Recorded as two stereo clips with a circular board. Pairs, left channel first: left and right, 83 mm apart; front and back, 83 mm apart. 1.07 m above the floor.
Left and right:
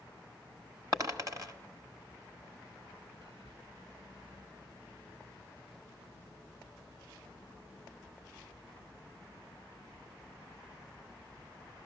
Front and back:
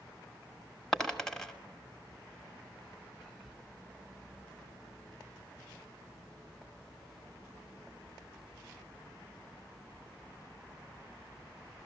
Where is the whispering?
90° right, 1.3 m.